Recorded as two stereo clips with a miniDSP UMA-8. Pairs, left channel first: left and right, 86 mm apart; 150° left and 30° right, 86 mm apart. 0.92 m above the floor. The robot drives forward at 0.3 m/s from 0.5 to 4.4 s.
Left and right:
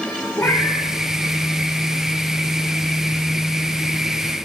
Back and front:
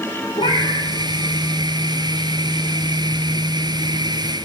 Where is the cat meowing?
150° left, 8 m.